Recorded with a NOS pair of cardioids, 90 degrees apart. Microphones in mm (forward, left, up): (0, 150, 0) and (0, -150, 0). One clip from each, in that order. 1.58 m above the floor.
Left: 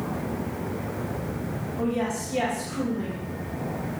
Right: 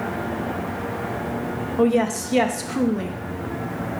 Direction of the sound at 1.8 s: 65° right.